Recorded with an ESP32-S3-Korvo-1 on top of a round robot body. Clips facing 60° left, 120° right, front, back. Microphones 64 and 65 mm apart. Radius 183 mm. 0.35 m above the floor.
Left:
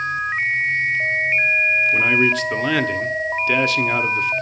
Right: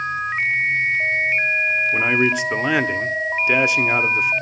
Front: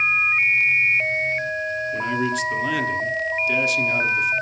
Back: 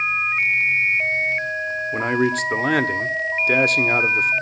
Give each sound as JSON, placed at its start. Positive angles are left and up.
{"t": 1.9, "sound": "a man speaking", "azimuth_deg": 170, "distance_m": 1.6}